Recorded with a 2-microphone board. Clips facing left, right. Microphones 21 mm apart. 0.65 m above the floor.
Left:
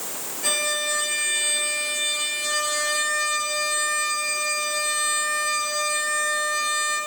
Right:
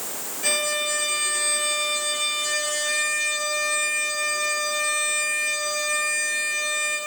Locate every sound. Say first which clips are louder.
0.4 s a violin: even; 15° right (ahead or behind), 4.5 m